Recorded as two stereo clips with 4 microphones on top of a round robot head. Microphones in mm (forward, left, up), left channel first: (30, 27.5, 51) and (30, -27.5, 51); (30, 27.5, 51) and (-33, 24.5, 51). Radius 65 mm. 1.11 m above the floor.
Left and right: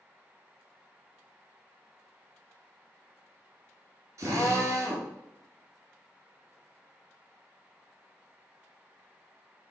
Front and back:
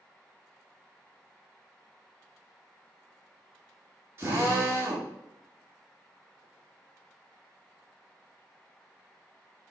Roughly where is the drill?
Behind right.